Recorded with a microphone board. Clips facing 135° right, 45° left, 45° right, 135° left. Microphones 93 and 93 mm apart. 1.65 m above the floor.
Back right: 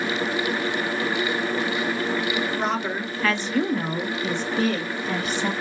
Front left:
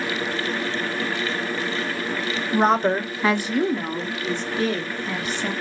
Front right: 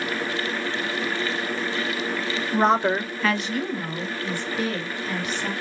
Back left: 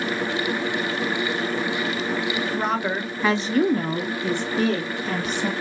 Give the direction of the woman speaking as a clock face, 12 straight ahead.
12 o'clock.